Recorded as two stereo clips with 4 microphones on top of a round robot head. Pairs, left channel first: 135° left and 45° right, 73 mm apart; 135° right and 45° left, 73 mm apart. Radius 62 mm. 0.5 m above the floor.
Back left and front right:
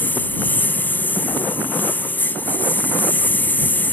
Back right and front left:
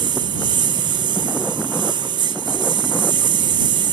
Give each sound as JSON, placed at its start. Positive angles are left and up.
{"t": 0.0, "sound": "a lawn mower", "azimuth_deg": 65}